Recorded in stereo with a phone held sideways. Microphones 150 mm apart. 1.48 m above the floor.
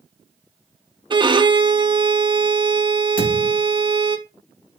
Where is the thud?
65° left (ahead or behind), 4.5 m.